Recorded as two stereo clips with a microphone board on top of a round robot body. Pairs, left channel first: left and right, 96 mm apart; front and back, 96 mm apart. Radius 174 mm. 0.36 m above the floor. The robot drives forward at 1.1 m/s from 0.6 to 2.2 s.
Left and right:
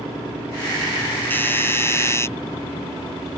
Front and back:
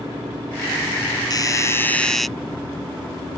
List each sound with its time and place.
1.3 s a doorbell: 30° left; by 2.3 s 85° left